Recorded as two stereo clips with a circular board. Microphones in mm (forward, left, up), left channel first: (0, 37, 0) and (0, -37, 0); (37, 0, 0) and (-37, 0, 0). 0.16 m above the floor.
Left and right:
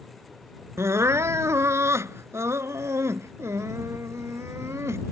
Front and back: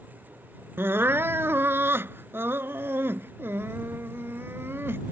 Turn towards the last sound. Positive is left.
turn(degrees=-130)